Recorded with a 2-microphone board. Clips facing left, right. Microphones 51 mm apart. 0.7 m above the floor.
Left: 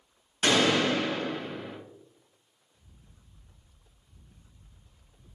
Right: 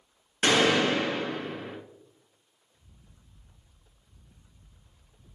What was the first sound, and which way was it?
A gunshot, 45° right (ahead or behind).